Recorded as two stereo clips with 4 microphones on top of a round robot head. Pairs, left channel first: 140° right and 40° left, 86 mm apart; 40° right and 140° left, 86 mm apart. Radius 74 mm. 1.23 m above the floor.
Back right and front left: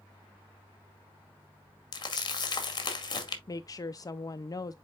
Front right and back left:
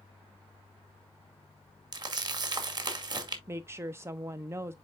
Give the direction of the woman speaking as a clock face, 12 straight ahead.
6 o'clock.